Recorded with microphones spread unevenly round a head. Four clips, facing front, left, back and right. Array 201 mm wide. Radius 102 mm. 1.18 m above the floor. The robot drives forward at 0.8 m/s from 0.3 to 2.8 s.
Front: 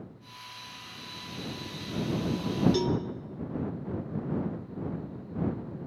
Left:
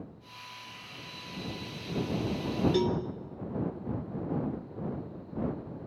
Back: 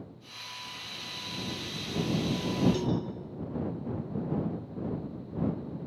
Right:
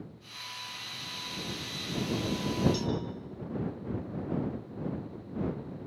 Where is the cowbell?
45° left, 1.4 m; by 3.0 s 50° left, 1.3 m.